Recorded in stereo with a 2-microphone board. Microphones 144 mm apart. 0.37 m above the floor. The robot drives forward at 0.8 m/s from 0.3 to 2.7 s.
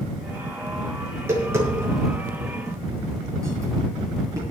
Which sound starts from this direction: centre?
Tapping, at 1.1 s.